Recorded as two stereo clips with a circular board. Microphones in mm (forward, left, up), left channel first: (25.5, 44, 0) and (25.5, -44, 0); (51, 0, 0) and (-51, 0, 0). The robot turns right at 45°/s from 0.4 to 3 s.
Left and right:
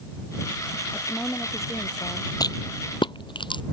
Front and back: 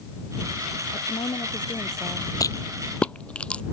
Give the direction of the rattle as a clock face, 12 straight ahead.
10 o'clock.